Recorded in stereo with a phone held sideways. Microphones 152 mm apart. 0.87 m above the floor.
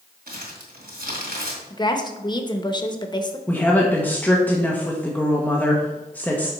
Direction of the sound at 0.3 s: 80° right.